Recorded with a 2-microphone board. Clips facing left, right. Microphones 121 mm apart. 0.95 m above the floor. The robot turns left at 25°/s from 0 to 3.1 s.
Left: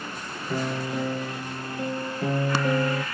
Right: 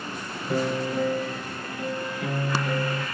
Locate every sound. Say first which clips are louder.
0.5 s a piano: right 3 dB; 170° right, 3.5 m; by 3.0 s 125° left, 3.5 m